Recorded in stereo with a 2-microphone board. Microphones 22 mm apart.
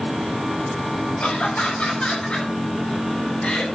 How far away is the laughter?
About 7.5 m.